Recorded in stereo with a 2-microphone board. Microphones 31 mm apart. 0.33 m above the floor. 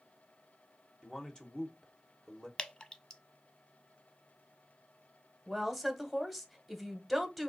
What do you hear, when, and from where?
1.0 s a man speaking: 20° left (ahead or behind), 1.2 m
2.6 s dripping: 30° left (ahead or behind), 0.6 m
5.5 s a woman speaking: centre (ahead or behind), 1.0 m